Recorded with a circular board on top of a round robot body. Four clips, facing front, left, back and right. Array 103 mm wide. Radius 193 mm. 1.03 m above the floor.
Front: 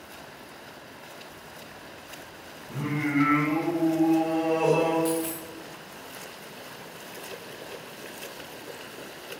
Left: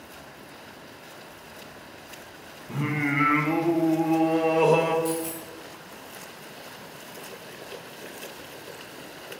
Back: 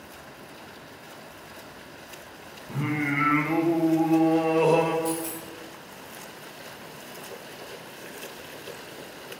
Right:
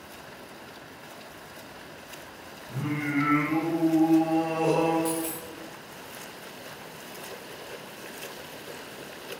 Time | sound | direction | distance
2.7 | singing | 115° left | 1.2 m
5.0 | a dropped coin | 35° right | 2 m